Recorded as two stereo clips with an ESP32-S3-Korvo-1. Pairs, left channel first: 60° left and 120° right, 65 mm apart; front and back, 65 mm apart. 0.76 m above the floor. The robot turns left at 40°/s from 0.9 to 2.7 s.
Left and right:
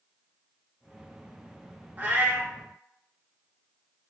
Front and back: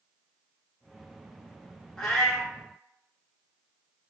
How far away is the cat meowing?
About 0.8 m.